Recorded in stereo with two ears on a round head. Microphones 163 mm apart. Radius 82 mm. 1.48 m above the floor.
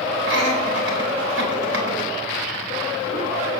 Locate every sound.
0.2 s laughter: 85° right, 3.5 m